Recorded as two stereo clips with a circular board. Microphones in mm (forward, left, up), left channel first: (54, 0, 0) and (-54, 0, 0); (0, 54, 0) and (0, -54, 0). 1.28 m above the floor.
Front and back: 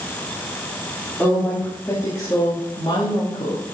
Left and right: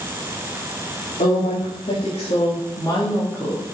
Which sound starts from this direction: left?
A woman speaking, at 1.2 s.